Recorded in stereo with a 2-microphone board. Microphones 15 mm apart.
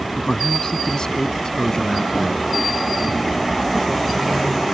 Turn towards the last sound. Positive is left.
turn(degrees=35)  # may be behind; listen again after turning